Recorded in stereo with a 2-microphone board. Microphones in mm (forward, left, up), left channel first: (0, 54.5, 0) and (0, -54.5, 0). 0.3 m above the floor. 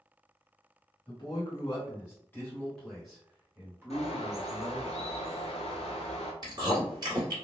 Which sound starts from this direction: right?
Chewing, at 6.4 s.